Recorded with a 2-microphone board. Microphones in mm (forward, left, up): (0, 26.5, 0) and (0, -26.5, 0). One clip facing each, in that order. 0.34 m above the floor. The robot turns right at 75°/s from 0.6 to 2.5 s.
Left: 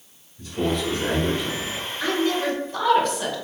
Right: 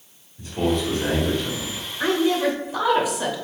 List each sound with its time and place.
0.4 s a man speaking: 10° right (ahead or behind), 1.4 m; by 1.8 s 25° left (ahead or behind), 1.4 m
2.0 s a woman speaking: 20° right (ahead or behind), 0.9 m; by 3.4 s 10° right (ahead or behind), 0.9 m